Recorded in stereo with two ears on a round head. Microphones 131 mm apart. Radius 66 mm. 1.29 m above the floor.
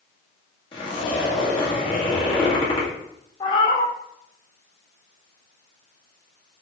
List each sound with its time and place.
0.7 s a zipper: 40° left (ahead or behind), 1.5 m
3.4 s a cat meowing: 35° left (ahead or behind), 0.8 m